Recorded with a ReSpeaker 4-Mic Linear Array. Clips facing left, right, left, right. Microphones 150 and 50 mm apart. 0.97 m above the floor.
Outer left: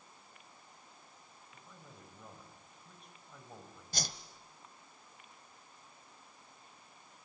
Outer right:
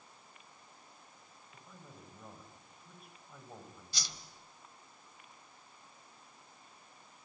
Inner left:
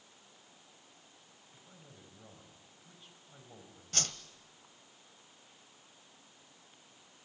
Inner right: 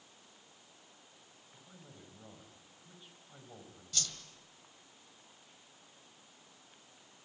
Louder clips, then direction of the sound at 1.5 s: Outer right 2 dB, inner right 2 dB; 5° right (ahead or behind).